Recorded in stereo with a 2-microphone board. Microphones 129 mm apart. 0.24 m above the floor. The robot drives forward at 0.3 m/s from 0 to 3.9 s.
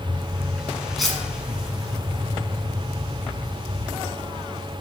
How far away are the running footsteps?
No running footsteps in this recording.